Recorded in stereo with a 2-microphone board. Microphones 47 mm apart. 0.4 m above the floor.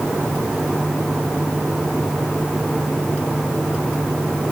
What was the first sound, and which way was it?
Only background noise.